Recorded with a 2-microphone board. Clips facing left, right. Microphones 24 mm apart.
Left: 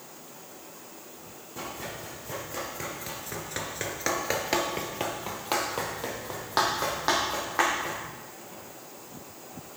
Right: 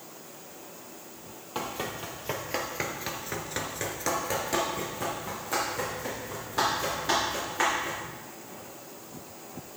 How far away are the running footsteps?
About 2 m.